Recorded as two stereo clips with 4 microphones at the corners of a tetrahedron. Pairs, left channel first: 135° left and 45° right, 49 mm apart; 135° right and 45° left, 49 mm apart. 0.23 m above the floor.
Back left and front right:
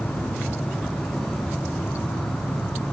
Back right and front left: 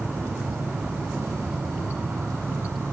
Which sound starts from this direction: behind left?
An insect, at 0.0 s.